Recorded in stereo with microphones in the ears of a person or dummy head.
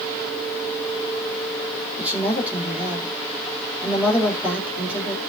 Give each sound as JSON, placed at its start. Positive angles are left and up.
{"t": 2.0, "sound": "a woman speaking", "side_deg": -10, "distance_m": 3.0}